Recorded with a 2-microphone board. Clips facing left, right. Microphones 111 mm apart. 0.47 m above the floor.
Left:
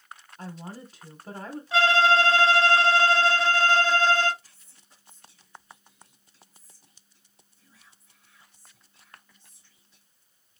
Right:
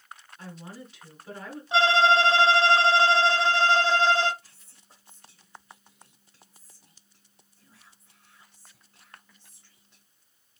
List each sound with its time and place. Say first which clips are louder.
0.4 s a woman speaking: left 3 dB; 40° left (ahead or behind), 1.1 m
1.7 s a violin: even; 25° right (ahead or behind), 1.1 m
4.4 s whispering: right 2 dB; 65° right (ahead or behind), 2 m